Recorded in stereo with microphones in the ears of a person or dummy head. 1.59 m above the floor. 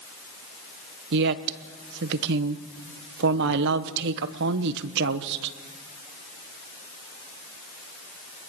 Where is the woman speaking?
60° right (ahead or behind), 1.2 m.